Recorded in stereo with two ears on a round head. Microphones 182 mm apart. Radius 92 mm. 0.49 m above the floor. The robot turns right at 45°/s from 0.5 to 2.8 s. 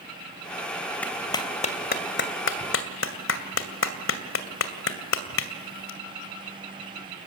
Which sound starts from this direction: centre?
A clap, at 1.0 s.